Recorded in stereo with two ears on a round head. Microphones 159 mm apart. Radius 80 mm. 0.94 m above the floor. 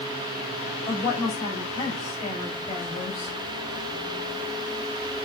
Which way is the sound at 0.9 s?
15° left (ahead or behind).